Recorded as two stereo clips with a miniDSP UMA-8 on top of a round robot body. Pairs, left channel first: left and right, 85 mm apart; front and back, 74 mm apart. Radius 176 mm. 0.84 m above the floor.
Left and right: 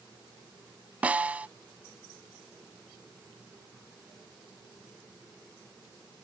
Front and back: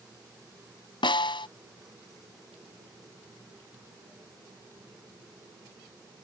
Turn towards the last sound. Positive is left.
turn(degrees=-15)